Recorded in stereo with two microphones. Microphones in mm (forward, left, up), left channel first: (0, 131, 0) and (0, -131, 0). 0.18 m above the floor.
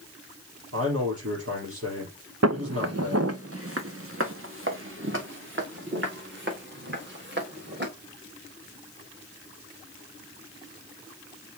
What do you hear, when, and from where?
0.7 s a man speaking: 60° right (ahead or behind), 4.5 m
2.4 s footsteps: 80° right, 0.8 m; by 7.9 s 45° right (ahead or behind), 4 m